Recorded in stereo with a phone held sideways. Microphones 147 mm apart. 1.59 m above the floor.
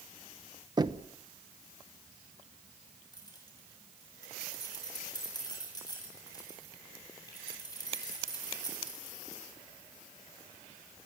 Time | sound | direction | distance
0.8 | knocking | 30° right (ahead or behind) | 1.0 m
3.1 | keys jangling | 25° left (ahead or behind) | 8.5 m